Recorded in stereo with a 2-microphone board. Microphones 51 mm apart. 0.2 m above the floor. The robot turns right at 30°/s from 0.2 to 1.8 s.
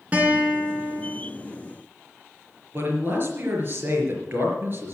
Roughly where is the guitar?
Right.